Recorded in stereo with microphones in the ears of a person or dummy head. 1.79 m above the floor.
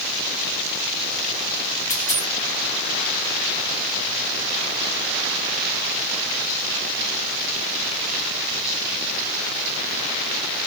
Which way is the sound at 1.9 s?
15° left (ahead or behind).